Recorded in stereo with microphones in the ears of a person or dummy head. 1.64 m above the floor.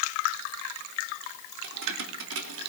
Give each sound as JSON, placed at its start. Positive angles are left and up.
{"t": 1.6, "sound": "keys jangling", "side_deg": -70, "distance_m": 3.5}